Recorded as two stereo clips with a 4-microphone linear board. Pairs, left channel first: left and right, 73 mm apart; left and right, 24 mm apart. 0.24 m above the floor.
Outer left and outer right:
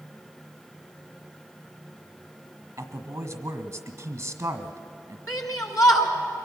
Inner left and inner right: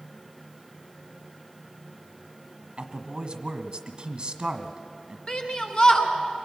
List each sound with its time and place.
2.8 s a man speaking: 40° right (ahead or behind), 1.5 m
5.3 s a shout: 55° left (ahead or behind), 2.5 m